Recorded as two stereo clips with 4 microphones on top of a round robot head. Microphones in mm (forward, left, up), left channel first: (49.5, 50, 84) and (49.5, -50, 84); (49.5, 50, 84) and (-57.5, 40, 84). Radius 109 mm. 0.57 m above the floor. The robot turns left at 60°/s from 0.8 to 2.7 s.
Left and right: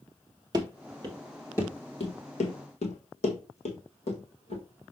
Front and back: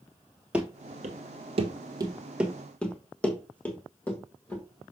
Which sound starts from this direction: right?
Running footsteps, at 0.5 s.